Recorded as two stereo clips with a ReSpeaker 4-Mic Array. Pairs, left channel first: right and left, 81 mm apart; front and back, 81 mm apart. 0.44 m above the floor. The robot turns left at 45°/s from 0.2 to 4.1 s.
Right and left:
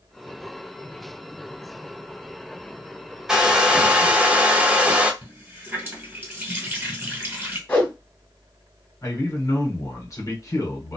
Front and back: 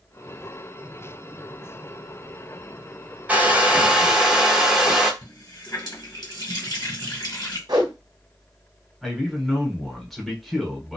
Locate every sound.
3.3 s a hair dryer: 150° left, 0.6 m; by 5.1 s 115° left, 0.6 m
5.2 s a running tap: 25° left, 1.6 m
7.7 s a whoosh: 160° right, 1.2 m
9.0 s a man speaking: 90° right, 1.0 m